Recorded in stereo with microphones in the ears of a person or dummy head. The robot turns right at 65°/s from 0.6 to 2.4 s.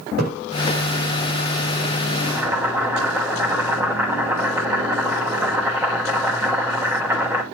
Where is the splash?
50° right (ahead or behind), 5.5 m.